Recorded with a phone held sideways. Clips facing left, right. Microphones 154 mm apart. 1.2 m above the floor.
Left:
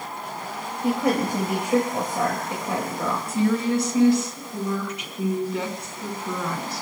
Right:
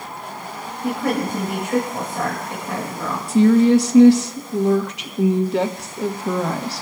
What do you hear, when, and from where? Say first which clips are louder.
0.8 s a woman speaking: even; 20° left (ahead or behind), 5 m
3.3 s a woman speaking: right 10 dB; 85° right, 1.5 m